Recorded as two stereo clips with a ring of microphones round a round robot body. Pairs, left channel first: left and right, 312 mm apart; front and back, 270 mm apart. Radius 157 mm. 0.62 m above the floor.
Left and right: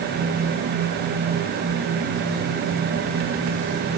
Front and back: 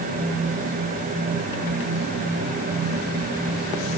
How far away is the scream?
I don't hear a scream.